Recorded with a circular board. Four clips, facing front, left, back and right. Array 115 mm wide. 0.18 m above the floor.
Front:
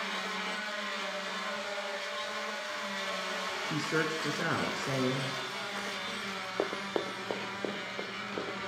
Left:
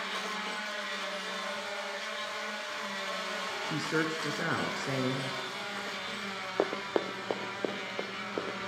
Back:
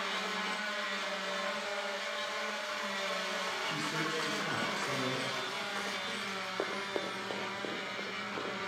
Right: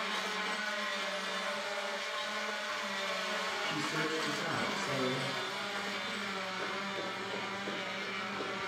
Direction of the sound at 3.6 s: 50° left.